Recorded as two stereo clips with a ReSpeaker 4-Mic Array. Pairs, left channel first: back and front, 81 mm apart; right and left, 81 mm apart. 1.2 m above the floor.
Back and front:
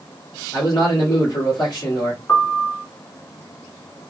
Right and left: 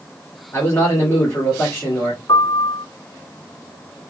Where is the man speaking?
150° right, 2.5 m.